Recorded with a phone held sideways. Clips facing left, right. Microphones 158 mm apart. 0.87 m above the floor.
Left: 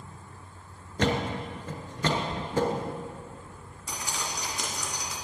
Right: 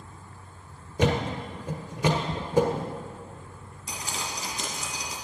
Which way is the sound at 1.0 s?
10° right (ahead or behind).